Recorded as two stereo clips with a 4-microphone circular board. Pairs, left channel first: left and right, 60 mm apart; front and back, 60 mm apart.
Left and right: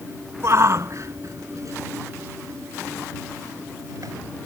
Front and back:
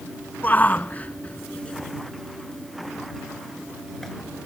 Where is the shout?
55° right; by 4.1 s 90° right.